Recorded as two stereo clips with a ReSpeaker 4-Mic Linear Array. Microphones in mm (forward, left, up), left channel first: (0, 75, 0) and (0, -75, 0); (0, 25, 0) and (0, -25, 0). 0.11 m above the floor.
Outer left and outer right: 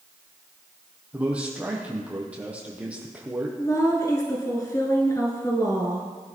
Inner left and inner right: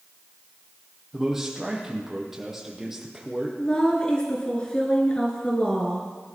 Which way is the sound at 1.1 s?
10° right (ahead or behind).